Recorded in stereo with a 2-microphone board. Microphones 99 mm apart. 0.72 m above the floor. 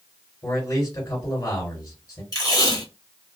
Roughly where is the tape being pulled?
Left.